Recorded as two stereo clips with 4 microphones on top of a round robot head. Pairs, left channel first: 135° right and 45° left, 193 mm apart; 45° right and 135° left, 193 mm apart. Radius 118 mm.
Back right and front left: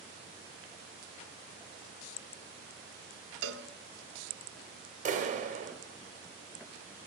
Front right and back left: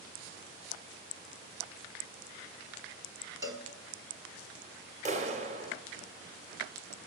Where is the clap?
90° left, 2.5 m.